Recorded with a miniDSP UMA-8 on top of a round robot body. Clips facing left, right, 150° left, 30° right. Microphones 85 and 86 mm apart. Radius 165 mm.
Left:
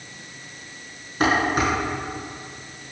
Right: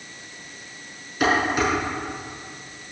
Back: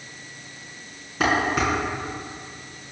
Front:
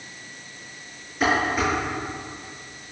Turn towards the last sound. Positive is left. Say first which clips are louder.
# even, even
turn(degrees=145)